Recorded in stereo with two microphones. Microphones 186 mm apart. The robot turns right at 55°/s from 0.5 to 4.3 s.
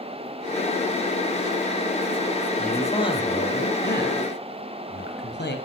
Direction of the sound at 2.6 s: 5° left.